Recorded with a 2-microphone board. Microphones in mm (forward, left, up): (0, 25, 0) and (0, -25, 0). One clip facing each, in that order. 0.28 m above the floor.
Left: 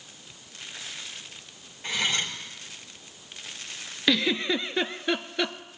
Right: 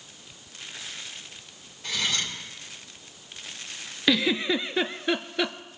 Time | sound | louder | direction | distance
1.8 | cutlery clinking | left 1 dB | 30° left (ahead or behind) | 3 m
4.1 | a giggle | right 1 dB | 5° right (ahead or behind) | 0.6 m